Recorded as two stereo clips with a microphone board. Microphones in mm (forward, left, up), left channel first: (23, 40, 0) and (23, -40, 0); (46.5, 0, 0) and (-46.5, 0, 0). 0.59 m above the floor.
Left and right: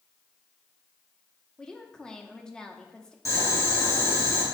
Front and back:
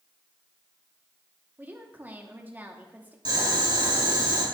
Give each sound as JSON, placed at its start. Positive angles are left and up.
{"t": 1.6, "sound": "a woman speaking", "azimuth_deg": 155, "distance_m": 1.0}
{"t": 3.2, "sound": "boiling", "azimuth_deg": 140, "distance_m": 3.5}